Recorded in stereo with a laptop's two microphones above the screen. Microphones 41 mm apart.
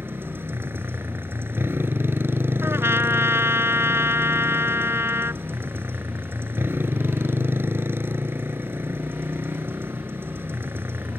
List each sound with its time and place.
0.0 s a motorcycle: 65° right (ahead or behind)
2.6 s a trumpet: 80° right